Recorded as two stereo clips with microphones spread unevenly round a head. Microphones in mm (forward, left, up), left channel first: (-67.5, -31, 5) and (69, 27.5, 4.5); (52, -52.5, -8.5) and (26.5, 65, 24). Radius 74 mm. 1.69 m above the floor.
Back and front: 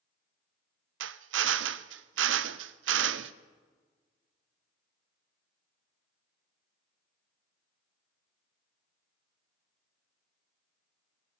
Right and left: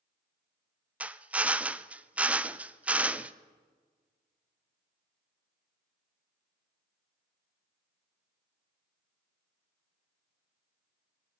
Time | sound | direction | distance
1.0 | a drill | 20° left | 0.5 m